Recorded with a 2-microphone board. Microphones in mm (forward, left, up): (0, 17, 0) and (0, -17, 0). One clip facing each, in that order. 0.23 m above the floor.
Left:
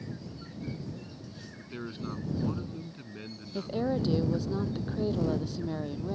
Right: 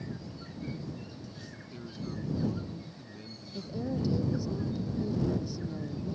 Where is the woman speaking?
55° left (ahead or behind).